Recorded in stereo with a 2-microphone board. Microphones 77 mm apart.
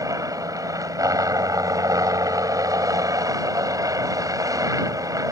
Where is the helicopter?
50° right (ahead or behind).